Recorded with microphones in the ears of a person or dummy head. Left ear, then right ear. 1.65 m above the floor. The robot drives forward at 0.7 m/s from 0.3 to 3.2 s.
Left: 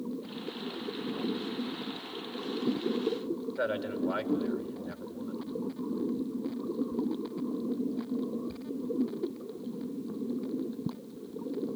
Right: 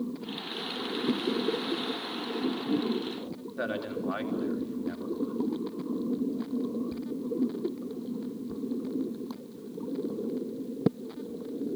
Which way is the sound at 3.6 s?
Centre (ahead or behind).